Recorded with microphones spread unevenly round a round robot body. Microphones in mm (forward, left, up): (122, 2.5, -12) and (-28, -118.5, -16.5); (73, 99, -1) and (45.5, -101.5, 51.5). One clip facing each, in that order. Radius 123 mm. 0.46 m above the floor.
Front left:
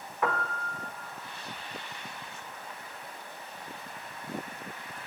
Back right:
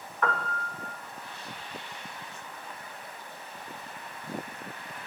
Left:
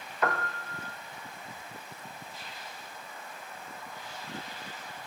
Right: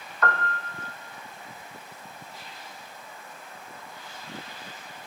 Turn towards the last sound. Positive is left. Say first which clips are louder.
# even, right 2 dB
turn(degrees=105)